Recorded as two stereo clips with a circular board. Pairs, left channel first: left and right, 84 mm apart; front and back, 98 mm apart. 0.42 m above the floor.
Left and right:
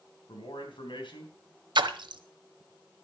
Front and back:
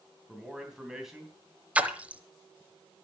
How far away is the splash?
About 0.9 m.